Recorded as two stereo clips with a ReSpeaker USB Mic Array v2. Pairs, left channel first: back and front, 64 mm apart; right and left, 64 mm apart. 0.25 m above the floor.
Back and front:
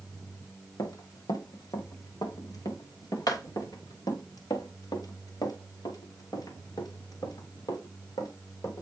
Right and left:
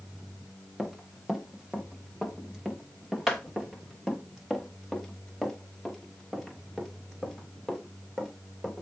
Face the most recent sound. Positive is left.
turn(degrees=175)